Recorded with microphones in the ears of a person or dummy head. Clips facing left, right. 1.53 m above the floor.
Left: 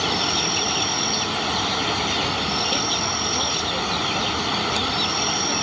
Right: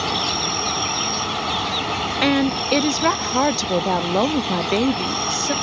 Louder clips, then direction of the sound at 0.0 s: Even; 5° left (ahead or behind).